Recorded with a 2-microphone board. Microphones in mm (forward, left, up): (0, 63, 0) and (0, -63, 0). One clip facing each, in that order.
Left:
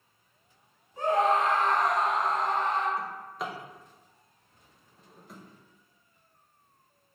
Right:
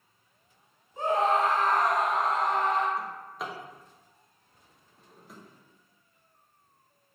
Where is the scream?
25° right (ahead or behind), 1.1 m; by 2.9 s 85° right, 0.8 m.